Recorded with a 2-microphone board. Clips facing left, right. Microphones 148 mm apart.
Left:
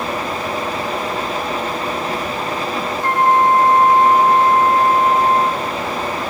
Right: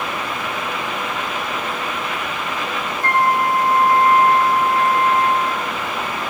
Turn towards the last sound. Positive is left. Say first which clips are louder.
# left 4 dB
turn(degrees=-85)